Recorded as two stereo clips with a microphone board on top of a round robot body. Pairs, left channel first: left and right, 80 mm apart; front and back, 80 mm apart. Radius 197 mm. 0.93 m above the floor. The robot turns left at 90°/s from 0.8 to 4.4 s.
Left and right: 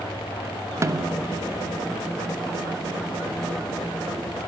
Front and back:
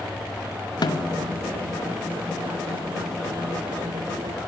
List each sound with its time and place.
0.8 s a snare drum: 35° right, 2.5 m; by 1.2 s 75° right, 2.5 m